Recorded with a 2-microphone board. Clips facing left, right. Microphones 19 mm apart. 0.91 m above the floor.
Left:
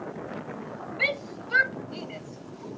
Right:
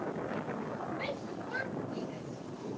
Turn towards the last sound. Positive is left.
turn(degrees=55)  # may be behind; listen again after turning